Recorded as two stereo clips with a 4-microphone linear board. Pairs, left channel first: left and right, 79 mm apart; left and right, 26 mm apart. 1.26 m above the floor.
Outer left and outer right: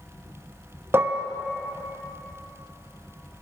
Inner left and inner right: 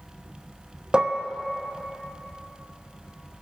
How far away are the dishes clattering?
About 0.8 m.